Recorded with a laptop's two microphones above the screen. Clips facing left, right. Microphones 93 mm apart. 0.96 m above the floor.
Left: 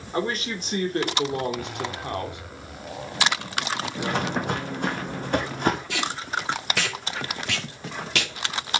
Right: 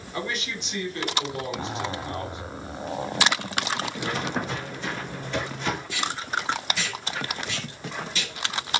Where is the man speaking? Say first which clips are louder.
Left 5 dB; 40° left (ahead or behind), 3 m; by 2.4 s 70° left (ahead or behind), 2.5 m.